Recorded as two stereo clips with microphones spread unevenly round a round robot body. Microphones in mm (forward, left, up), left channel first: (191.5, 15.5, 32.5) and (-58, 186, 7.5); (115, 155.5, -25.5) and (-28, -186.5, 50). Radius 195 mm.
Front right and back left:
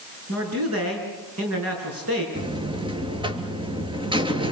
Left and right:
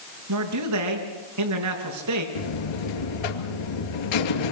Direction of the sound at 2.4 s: 70° left.